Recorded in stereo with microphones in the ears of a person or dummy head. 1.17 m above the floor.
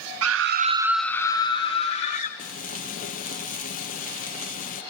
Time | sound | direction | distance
0.2 | a scream | 75° right (ahead or behind) | 0.9 m
2.4 | frying | 40° left (ahead or behind) | 1.0 m